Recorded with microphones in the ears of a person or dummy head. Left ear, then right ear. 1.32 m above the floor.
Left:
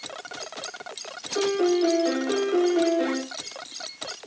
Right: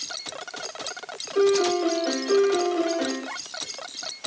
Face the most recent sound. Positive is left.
turn(degrees=10)  # may be behind; listen again after turning